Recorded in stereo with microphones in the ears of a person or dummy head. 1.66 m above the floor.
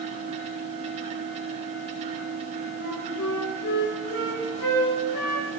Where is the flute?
75° left (ahead or behind), 5 m.